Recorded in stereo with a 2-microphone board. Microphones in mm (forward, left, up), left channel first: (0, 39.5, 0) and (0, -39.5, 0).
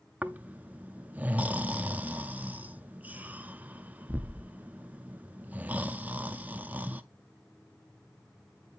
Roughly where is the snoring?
Right.